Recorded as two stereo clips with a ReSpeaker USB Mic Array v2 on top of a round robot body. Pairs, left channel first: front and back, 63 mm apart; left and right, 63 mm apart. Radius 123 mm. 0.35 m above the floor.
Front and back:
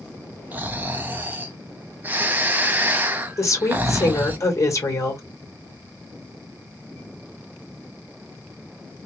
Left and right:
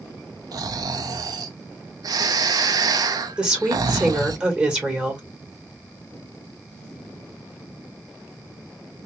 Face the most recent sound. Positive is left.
turn(degrees=-20)